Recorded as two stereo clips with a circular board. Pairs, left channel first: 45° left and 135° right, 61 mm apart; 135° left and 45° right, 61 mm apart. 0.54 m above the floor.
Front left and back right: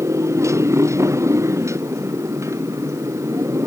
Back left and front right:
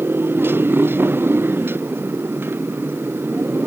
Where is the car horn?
I don't hear a car horn.